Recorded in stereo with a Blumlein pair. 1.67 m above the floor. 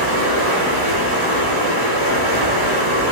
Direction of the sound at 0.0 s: 55° right.